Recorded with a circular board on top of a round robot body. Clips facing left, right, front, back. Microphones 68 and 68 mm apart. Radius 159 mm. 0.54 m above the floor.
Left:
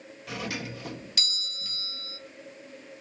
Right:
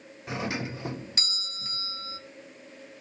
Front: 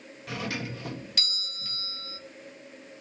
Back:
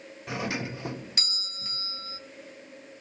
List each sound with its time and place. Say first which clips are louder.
0.3 s a doorbell: right 3 dB, back 2 dB; 130° right, 1.3 m